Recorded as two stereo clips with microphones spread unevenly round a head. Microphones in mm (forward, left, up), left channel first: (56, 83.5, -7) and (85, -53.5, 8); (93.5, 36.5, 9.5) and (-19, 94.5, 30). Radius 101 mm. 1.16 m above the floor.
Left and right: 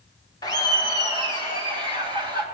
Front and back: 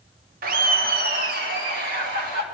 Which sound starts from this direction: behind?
Laughter, at 0.4 s.